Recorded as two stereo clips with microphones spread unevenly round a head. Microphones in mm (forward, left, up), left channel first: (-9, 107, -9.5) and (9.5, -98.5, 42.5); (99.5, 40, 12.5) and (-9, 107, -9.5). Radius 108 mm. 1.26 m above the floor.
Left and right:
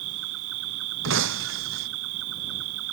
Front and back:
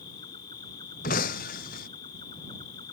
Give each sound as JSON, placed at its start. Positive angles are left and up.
{"t": 0.0, "sound": "an insect", "azimuth_deg": -95}
{"t": 1.0, "sound": "breaking glass", "azimuth_deg": -60}